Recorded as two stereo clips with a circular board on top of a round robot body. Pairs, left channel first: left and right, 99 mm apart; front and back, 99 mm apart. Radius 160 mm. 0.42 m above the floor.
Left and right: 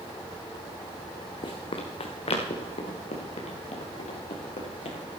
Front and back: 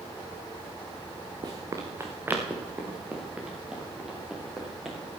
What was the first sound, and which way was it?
Running footsteps, 130° left.